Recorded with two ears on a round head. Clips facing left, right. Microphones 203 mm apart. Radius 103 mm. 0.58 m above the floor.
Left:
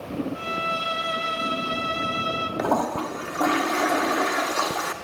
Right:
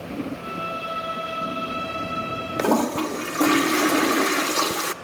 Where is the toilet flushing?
35° right (ahead or behind), 0.8 m.